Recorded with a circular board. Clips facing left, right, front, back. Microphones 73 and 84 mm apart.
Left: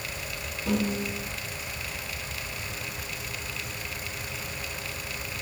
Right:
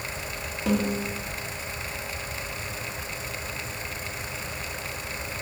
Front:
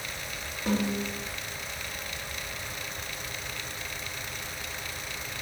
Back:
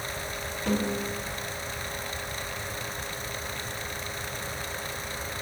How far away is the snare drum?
About 2.5 m.